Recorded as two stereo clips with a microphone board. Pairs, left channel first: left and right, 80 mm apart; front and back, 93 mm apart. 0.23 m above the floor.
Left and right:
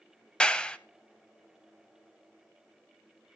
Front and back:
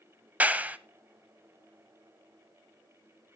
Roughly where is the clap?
Behind left.